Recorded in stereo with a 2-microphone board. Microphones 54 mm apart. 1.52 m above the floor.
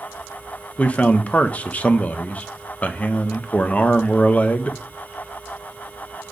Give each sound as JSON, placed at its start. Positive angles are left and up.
{"t": 0.8, "sound": "a man speaking", "side_deg": 30, "distance_m": 0.8}